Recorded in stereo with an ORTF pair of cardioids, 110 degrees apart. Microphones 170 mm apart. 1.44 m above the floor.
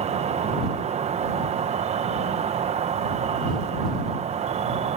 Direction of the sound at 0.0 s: 40° right.